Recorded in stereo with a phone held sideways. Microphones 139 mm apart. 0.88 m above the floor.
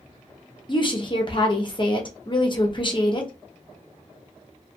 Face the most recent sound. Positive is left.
turn(degrees=35)  # may be behind; listen again after turning